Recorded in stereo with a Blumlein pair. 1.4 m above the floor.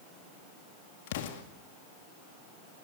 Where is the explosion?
55° left, 2.0 m.